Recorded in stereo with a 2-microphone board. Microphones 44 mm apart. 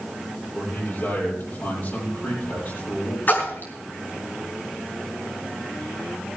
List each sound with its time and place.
0.6 s a man speaking: 50° left (ahead or behind), 10 m
3.3 s a splash: 45° left (ahead or behind), 5 m